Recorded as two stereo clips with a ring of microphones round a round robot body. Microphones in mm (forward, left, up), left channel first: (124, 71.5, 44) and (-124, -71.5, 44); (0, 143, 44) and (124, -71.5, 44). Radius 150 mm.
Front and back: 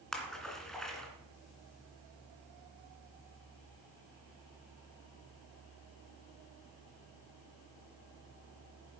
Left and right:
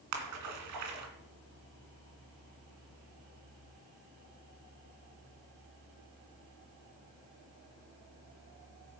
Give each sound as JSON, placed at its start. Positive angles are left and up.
{"t": 0.1, "sound": "a splash", "azimuth_deg": -60, "distance_m": 2.0}